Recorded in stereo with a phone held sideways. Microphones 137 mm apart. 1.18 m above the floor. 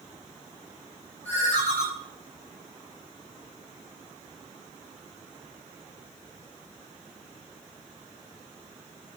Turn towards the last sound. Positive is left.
turn(degrees=15)  # may be behind; listen again after turning